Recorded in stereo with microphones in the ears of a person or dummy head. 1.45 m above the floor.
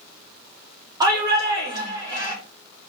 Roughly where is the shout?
Centre.